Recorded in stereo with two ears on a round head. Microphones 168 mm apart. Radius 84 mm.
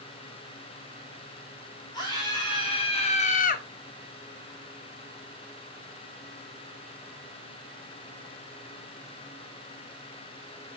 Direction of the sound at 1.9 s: 25° left (ahead or behind).